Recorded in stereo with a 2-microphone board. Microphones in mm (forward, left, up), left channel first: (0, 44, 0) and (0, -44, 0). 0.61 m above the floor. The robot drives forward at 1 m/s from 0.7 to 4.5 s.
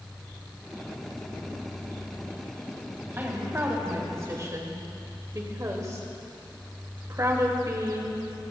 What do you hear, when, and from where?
3.2 s a woman speaking: 25° right (ahead or behind), 3.5 m; by 8.5 s 40° right (ahead or behind), 2.5 m